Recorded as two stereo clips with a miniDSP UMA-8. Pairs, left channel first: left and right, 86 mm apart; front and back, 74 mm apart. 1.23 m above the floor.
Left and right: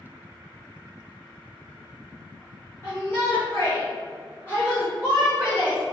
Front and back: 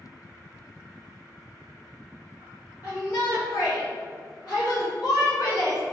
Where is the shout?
35° left, 1.4 m; by 5.8 s 10° left, 2.5 m.